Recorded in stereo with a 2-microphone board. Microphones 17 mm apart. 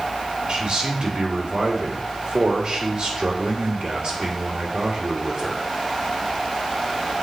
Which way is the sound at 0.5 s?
60° right (ahead or behind).